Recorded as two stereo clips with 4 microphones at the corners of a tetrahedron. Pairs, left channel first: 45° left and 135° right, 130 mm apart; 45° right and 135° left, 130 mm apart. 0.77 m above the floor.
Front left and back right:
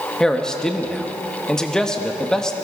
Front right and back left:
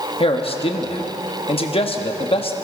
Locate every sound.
0.2 s a man speaking: 35° right, 1.1 m